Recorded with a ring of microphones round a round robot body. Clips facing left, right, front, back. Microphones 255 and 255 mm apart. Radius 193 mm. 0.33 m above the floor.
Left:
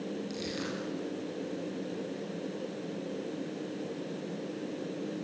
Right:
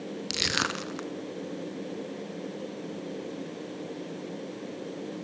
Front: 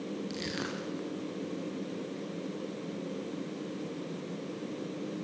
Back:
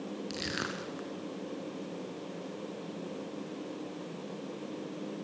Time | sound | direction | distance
0.3 | crushing | 95° right | 1.3 m